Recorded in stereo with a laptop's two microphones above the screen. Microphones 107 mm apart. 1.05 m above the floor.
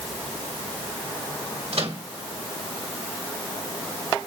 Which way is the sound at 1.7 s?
70° right (ahead or behind).